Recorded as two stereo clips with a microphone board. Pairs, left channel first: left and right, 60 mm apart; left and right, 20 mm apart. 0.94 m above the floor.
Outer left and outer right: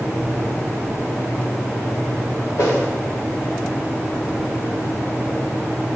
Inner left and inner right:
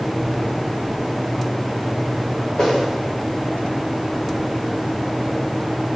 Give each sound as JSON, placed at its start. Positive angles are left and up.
{"t": 2.6, "sound": "a whoosh", "side_deg": 70, "distance_m": 3.5}